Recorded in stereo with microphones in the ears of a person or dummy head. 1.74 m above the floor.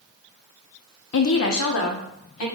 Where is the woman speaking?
65° left (ahead or behind), 0.5 m; by 2.5 s 75° left (ahead or behind), 1.4 m.